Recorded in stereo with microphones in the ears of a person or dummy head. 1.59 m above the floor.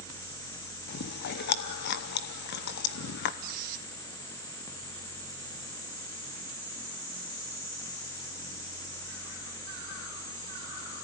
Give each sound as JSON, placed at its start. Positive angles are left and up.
{"t": 0.9, "sound": "chewing", "side_deg": 60, "distance_m": 0.9}
{"t": 3.4, "sound": "a squeak", "side_deg": -55, "distance_m": 1.4}